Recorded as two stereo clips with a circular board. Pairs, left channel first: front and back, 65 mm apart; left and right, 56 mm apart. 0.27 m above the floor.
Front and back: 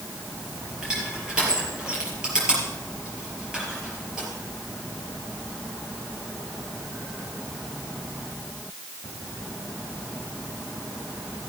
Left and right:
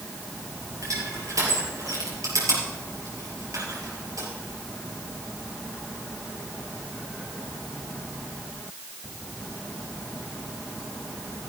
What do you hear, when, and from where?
0.8 s crushing: 105° right, 5.5 m